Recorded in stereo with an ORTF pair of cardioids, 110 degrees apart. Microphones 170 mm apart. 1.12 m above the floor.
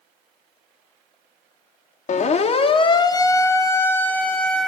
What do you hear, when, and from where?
2.1 s a siren: 45° left, 2 m; by 4.7 s 5° left, 3.5 m